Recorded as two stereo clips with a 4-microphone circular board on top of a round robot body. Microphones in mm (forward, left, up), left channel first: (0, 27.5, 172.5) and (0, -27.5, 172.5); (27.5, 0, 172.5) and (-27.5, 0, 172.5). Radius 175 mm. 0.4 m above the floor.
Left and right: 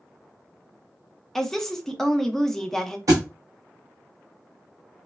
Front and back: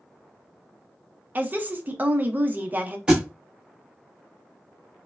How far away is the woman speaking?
About 0.8 m.